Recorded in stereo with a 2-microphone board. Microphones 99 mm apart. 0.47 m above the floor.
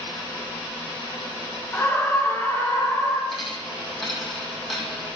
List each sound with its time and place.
1.7 s a scream: 20° left (ahead or behind), 1.5 m
3.3 s a dropped coin: centre (ahead or behind), 4 m